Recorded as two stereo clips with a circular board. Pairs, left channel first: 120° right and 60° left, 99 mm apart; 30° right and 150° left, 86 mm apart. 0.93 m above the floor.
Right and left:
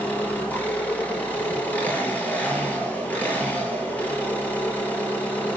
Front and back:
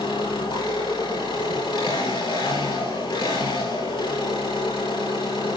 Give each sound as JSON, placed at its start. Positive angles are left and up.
{"t": 0.0, "sound": "an engine running", "azimuth_deg": -45, "distance_m": 7.0}